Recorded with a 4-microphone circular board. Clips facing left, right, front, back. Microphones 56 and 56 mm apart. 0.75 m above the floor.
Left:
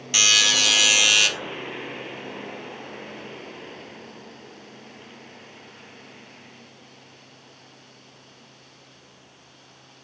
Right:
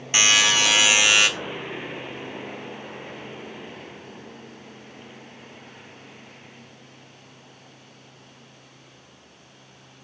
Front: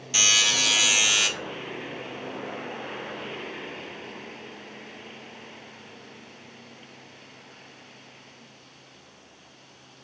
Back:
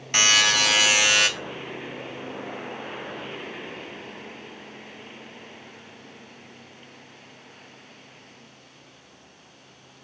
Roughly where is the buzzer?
Behind right.